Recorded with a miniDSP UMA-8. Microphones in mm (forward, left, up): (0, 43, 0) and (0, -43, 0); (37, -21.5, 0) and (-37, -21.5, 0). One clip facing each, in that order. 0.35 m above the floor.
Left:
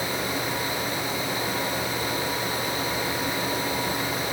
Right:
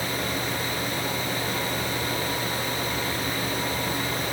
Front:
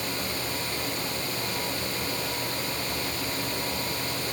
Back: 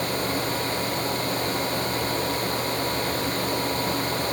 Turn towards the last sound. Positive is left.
No sound to turn to.